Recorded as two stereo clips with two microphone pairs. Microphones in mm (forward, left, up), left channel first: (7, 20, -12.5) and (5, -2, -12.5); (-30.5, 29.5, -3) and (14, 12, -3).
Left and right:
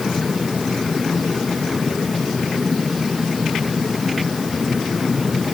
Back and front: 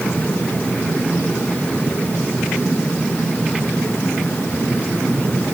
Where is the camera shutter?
No camera shutter in this recording.